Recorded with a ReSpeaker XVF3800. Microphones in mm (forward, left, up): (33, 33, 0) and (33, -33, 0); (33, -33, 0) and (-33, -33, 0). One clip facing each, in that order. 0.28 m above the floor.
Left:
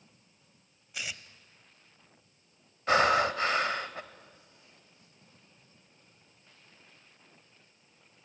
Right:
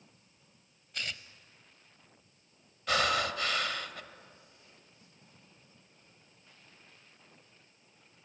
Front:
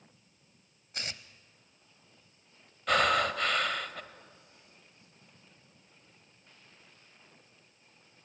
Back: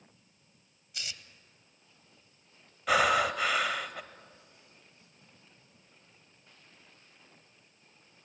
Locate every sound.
0.9 s tearing paper: 10° left, 0.7 m
2.9 s breathing: 105° left, 0.8 m